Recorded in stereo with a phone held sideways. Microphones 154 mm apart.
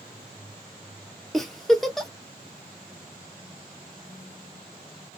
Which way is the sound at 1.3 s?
Centre (ahead or behind).